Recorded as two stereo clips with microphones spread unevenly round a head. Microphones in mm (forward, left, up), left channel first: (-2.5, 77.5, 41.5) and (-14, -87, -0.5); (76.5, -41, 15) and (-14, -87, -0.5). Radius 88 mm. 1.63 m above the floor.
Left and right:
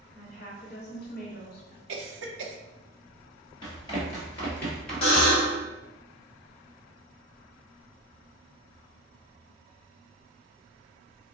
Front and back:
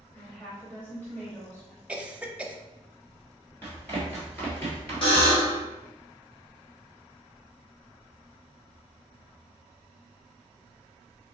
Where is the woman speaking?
105° left, 0.9 m.